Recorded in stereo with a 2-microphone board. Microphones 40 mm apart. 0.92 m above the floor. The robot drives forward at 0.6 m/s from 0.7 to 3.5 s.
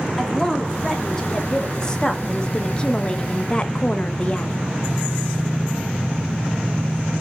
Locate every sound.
0.2 s a woman speaking: 10° left (ahead or behind), 2.5 m; by 4.5 s 25° left (ahead or behind), 1.2 m